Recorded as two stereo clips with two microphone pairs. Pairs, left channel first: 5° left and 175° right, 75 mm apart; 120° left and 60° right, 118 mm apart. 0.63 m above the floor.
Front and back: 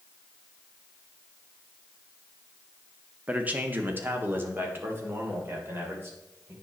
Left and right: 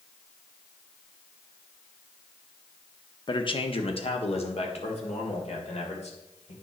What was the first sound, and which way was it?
A man speaking, 125° left.